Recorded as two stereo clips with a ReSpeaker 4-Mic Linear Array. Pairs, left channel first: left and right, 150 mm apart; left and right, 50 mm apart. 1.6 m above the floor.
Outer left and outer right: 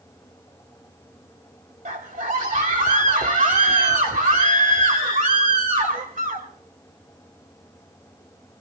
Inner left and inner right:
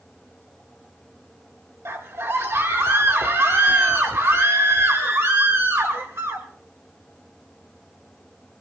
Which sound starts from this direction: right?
A scream, at 1.9 s.